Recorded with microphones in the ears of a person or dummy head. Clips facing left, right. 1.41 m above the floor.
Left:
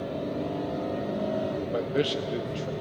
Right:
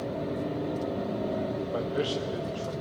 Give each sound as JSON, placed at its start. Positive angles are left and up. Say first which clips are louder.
{"t": 1.7, "sound": "a man speaking", "louder": "left 4 dB", "side_deg": 30, "distance_m": 0.9}